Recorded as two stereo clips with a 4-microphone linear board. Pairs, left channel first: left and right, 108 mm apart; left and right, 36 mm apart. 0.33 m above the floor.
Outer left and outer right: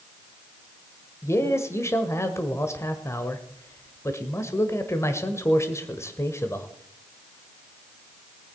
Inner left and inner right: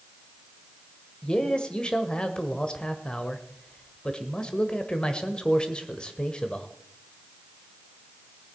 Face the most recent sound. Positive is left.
turn(degrees=25)  # may be behind; listen again after turning